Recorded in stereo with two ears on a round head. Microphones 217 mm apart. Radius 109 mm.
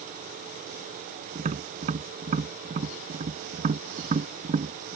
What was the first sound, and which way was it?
Tapping, 30° right (ahead or behind).